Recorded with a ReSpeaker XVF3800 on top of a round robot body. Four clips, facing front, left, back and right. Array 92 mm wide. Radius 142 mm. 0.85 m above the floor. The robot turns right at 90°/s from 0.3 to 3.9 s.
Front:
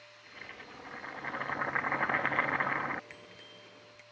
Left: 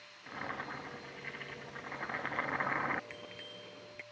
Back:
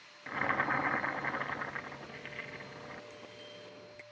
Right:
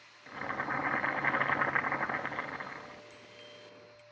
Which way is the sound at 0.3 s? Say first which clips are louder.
Right 6 dB, back 17 dB; 175° left.